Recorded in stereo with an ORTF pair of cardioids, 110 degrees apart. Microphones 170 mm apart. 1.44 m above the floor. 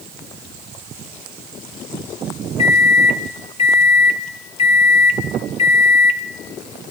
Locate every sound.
2.6 s a microwave: 35° left, 1.3 m